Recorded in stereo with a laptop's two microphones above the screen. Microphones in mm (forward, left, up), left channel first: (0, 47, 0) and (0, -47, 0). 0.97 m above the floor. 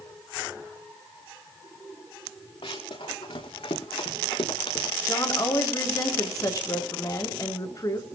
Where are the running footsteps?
80° left, 4.5 m; by 5.0 s 85° left, 7 m.